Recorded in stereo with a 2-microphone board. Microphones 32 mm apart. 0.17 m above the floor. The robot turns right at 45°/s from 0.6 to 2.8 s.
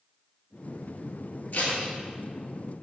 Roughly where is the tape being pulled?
Left.